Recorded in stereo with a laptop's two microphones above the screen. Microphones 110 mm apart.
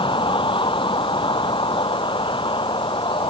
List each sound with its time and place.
0.0 s a vehicle: 50° left (ahead or behind)